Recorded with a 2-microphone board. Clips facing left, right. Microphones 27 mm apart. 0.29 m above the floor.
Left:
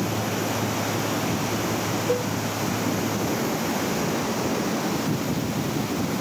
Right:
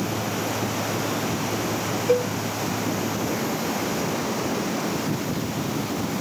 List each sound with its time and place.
2.1 s a cowbell: 45° right (ahead or behind)